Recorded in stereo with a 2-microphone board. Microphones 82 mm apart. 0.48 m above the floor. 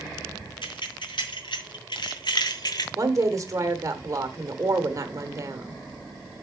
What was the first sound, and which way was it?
Keys jangling, 80° left.